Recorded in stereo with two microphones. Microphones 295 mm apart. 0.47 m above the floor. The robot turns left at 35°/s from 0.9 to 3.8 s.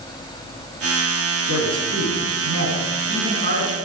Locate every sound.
1.5 s a man speaking: 70° right, 4.5 m; by 3.8 s 150° right, 4.5 m